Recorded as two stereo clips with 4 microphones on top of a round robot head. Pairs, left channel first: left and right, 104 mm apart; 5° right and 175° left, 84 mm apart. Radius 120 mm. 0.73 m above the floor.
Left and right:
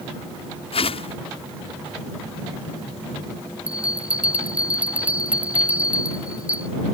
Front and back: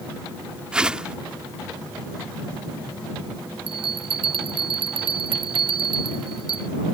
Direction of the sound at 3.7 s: 165° right.